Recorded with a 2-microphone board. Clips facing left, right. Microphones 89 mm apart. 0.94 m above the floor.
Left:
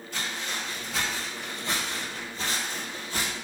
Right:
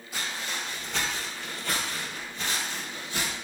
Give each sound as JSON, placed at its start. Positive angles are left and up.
{"t": 0.1, "sound": "footsteps", "side_deg": -10, "distance_m": 1.4}